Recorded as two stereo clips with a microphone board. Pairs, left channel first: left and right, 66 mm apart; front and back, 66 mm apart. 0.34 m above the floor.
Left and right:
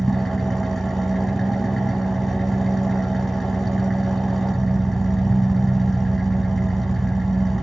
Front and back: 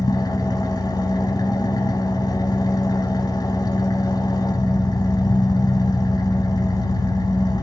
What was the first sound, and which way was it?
An engine running, 5° left.